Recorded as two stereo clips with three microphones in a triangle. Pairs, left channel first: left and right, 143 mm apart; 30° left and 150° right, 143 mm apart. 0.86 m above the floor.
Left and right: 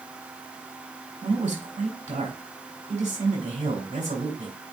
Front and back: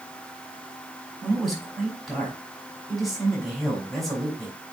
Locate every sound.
1.2 s a man speaking: 60° right, 5 m